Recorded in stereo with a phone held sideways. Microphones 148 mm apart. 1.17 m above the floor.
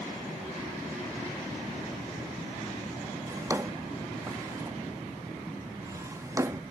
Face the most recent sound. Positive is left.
turn(degrees=-20)  # may be behind; listen again after turning